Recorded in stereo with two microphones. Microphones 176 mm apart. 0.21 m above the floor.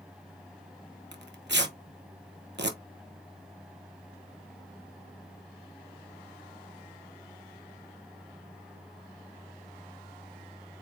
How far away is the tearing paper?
About 1.0 m.